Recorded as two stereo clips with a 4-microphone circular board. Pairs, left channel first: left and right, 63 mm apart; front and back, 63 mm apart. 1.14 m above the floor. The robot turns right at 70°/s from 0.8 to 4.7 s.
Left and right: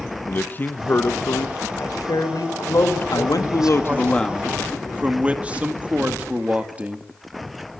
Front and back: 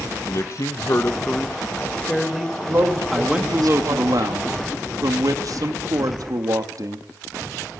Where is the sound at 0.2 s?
30° left, 1.2 m; by 1.7 s 90° left, 1.2 m.